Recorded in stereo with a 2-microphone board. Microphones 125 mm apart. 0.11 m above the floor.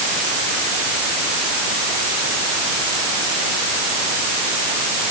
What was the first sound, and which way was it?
Only background noise.